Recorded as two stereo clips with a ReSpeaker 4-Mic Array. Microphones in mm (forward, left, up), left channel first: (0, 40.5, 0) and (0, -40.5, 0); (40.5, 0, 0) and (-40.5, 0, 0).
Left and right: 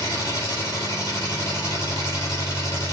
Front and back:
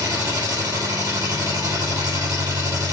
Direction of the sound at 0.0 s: 140° left.